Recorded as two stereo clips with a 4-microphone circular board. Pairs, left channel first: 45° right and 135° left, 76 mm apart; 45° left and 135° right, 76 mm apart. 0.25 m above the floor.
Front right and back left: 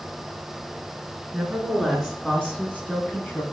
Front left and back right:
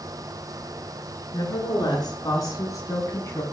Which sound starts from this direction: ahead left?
A woman speaking, at 1.3 s.